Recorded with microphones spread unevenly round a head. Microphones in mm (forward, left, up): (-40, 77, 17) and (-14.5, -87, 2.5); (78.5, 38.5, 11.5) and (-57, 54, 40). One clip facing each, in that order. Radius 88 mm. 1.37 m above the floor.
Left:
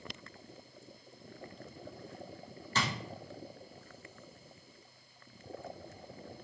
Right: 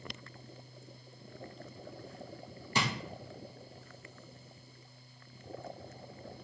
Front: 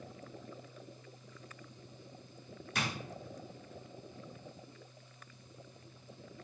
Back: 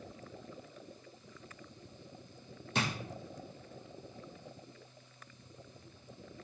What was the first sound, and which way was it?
A drawer, 160° right.